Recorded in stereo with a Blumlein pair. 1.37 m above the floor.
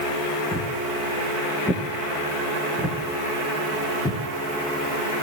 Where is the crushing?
I don't hear crushing.